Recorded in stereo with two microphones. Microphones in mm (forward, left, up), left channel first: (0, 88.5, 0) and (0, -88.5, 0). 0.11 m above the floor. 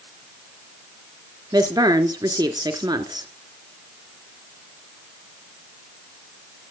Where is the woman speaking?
20° right (ahead or behind), 1.3 m.